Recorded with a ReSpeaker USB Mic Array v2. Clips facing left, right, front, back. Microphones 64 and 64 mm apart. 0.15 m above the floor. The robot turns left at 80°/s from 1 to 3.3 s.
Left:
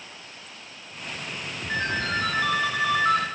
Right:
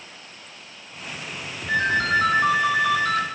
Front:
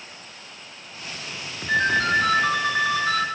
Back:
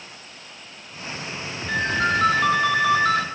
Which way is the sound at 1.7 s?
95° right.